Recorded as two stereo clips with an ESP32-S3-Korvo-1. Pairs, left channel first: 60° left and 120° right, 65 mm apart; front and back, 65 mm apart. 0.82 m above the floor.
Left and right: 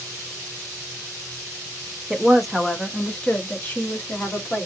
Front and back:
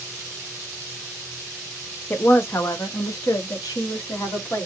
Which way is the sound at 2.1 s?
45° right.